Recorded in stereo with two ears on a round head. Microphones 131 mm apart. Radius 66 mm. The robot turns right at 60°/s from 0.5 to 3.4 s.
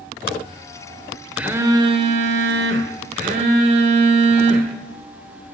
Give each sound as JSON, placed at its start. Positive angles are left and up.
{"t": 1.4, "sound": "a phone buzzing", "azimuth_deg": -170, "distance_m": 1.5}